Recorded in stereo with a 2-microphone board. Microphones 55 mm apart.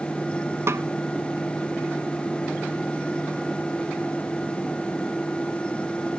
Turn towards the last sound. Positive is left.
turn(degrees=-55)  # may be behind; listen again after turning